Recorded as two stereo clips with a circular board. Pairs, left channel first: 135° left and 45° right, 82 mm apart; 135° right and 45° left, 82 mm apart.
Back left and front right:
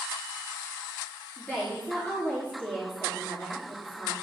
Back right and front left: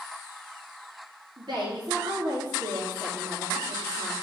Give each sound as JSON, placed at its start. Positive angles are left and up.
{"t": 1.4, "sound": "a woman speaking", "azimuth_deg": 70, "distance_m": 3.0}